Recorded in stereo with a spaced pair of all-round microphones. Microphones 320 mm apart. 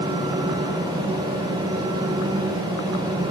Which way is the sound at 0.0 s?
10° right (ahead or behind).